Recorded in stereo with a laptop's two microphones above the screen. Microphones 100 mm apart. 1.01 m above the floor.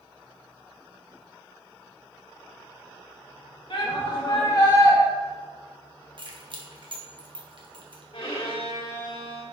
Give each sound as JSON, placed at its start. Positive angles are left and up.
{"t": 3.7, "sound": "a shout", "side_deg": 60, "distance_m": 1.5}
{"t": 6.2, "sound": "keys jangling", "side_deg": -55, "distance_m": 0.6}
{"t": 8.1, "sound": "a violin", "side_deg": 70, "distance_m": 1.3}